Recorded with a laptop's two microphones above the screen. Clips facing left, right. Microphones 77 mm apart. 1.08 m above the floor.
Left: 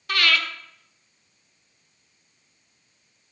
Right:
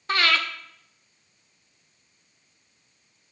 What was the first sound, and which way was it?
Breathing, 25° right (ahead or behind).